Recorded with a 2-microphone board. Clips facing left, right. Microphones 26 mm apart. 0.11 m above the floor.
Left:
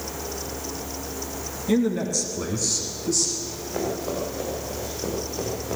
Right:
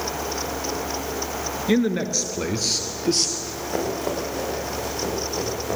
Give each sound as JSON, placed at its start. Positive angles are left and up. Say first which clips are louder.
{"t": 1.7, "sound": "a man speaking", "louder": "right 1 dB", "side_deg": -30, "distance_m": 1.5}
{"t": 3.4, "sound": "running footsteps", "louder": "right 2 dB", "side_deg": -90, "distance_m": 8.0}